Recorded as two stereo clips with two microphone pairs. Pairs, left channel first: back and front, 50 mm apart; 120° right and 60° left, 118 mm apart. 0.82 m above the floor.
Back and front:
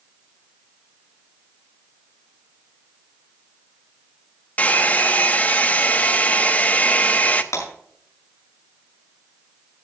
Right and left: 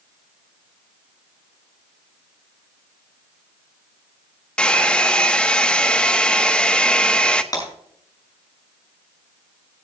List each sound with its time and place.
4.6 s a hair dryer: 175° left, 0.8 m
7.5 s breaking glass: 175° right, 6 m